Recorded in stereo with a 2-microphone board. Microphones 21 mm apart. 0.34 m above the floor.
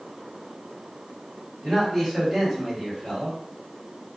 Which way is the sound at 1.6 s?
10° right (ahead or behind).